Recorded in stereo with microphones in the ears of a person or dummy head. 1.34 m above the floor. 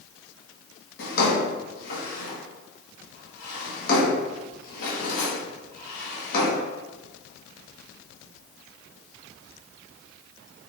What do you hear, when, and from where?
1.0 s a drawer: 60° left (ahead or behind), 1.1 m